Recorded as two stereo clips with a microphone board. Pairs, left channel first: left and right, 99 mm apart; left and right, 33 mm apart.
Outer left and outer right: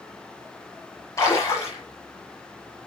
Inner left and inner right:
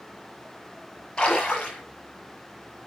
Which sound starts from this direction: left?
A splash, at 1.2 s.